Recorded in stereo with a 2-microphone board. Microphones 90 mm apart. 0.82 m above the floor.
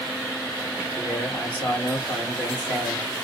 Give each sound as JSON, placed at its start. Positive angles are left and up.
{"t": 1.0, "sound": "a man speaking", "side_deg": 10, "distance_m": 2.5}